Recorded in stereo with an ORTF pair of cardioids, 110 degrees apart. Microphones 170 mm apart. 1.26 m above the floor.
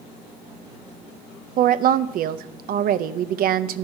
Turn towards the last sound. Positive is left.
turn(degrees=-60)